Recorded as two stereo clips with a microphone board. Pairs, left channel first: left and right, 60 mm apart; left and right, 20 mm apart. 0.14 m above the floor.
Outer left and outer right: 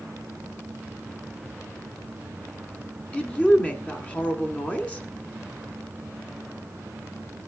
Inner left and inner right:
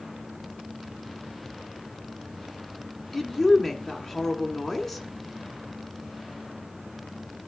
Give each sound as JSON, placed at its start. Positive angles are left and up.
{"t": 3.1, "sound": "a woman speaking", "side_deg": 25, "distance_m": 1.6}